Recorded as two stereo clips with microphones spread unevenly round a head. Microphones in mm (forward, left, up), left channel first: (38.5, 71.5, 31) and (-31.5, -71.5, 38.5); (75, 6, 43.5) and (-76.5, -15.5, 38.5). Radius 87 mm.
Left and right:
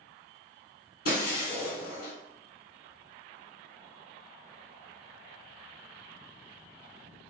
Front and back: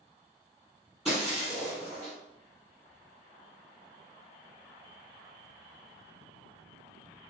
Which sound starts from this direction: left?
Breaking glass, at 1.1 s.